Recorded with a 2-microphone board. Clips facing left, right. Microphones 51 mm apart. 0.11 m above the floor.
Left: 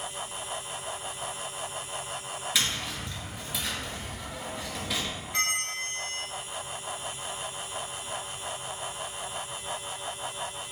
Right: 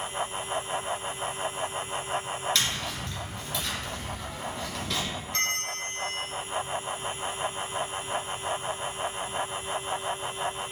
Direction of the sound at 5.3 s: 10° left (ahead or behind).